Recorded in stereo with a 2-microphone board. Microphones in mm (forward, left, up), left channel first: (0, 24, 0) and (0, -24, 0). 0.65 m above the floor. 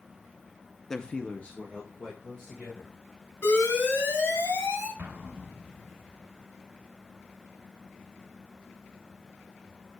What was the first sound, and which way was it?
A man speaking, 10° left (ahead or behind).